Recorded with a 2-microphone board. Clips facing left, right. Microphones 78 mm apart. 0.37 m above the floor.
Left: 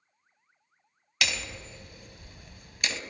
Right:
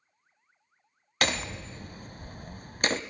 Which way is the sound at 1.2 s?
40° right (ahead or behind).